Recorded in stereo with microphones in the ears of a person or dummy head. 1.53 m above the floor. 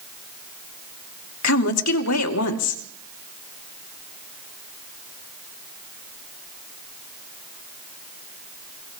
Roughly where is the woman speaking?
Left.